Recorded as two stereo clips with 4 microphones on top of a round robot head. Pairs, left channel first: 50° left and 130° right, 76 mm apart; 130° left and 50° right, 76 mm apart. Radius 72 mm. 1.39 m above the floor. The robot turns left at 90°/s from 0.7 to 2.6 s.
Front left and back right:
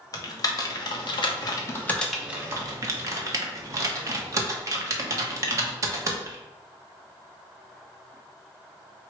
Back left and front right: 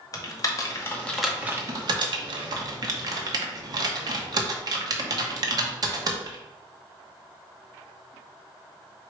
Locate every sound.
0.1 s typing on a keyboard: 85° left, 0.9 m; by 6.4 s 85° right, 0.9 m